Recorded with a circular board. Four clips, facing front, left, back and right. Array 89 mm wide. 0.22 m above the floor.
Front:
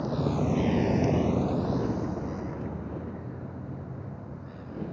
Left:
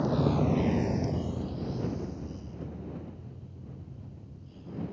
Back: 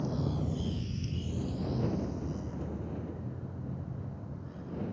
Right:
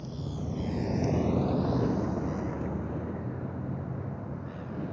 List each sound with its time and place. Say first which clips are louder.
0.0 s a vehicle: left 11 dB, front 6 dB; 65° left; by 4.9 s 75° right